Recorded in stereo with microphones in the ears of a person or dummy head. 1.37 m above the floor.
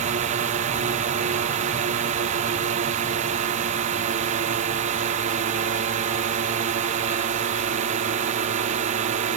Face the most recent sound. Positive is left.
turn(degrees=-40)  # may be behind; listen again after turning